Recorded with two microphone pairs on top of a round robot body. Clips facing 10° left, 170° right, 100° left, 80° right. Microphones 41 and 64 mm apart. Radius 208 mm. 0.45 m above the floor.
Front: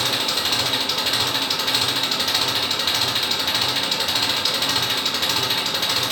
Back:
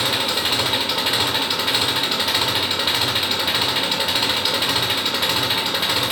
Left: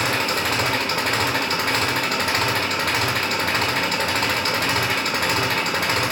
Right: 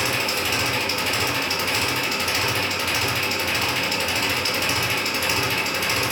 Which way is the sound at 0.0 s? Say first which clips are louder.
Back 2 dB, left 2 dB; 115° left.